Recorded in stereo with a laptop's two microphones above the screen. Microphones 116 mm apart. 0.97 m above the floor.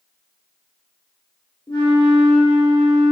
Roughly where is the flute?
Left.